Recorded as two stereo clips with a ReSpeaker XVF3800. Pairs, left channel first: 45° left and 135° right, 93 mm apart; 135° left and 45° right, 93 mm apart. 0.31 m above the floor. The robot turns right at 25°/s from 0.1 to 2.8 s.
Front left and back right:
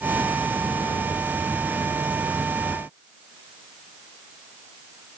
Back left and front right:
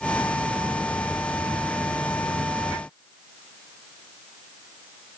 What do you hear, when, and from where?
Only background noise.